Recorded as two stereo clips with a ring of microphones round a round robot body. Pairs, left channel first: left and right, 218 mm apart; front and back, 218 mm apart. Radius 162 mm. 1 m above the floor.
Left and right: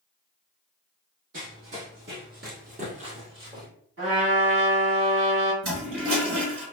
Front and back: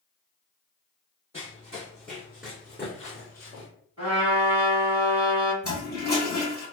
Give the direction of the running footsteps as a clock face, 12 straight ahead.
3 o'clock.